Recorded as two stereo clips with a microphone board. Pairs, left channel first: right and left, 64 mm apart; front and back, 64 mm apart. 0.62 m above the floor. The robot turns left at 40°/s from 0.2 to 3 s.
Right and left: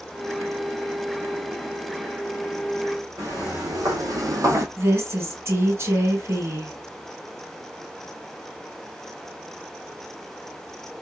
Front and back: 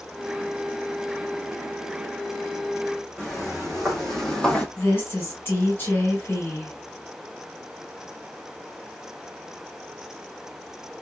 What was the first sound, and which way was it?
Footsteps, 90° left.